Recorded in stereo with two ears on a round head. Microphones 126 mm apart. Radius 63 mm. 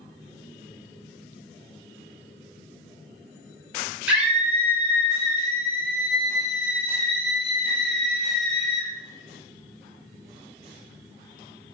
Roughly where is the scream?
Centre.